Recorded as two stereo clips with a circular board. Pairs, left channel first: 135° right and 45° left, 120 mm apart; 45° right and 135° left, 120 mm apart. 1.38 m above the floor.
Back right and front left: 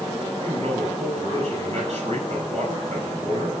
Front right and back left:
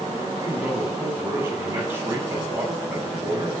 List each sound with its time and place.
0.4 s a man speaking: 65° left, 9.5 m